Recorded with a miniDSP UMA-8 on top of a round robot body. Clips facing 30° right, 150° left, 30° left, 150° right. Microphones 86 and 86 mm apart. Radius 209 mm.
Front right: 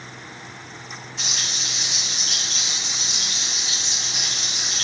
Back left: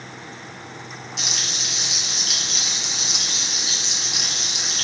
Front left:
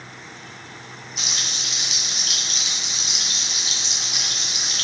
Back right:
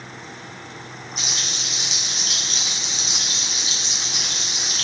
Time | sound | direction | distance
1.2 | frying | 160° left | 2 m